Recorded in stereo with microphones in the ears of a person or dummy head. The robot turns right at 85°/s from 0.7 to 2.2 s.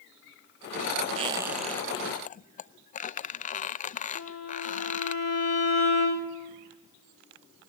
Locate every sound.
1.2 s a squeak: 40° right, 0.5 m; by 5.2 s 50° left, 0.5 m
4.2 s a violin: 80° left, 3.5 m